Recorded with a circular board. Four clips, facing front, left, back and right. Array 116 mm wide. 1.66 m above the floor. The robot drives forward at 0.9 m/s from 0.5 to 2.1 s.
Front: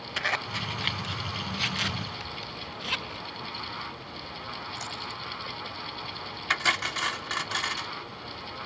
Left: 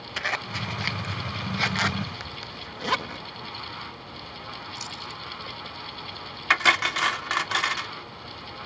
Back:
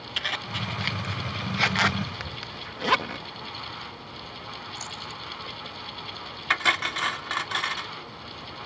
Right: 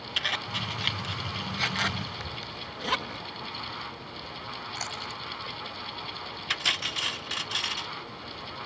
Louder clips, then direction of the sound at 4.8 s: Right 1 dB, front 1 dB; 85° right.